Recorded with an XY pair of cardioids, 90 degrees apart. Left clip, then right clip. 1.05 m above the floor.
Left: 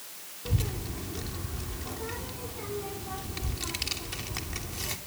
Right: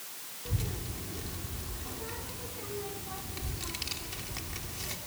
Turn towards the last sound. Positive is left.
turn(degrees=40)